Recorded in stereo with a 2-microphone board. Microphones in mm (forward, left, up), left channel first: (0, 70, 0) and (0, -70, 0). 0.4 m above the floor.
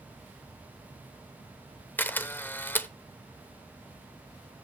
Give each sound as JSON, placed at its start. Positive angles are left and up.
{"t": 2.0, "sound": "a camera shutter", "side_deg": 15, "distance_m": 0.8}